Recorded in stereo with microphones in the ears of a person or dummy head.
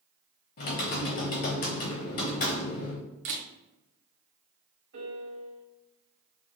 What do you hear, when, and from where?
0.6 s typing on a keyboard: 45° left (ahead or behind), 0.8 m
3.2 s a camera shutter: 45° right (ahead or behind), 0.7 m
4.9 s a piano: 60° right (ahead or behind), 1.6 m